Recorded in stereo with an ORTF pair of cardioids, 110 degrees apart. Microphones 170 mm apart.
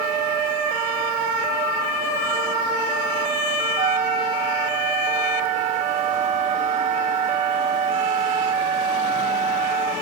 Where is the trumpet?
45° right, 0.8 m.